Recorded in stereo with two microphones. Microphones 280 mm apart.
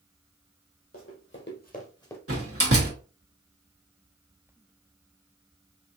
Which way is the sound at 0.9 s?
55° left (ahead or behind).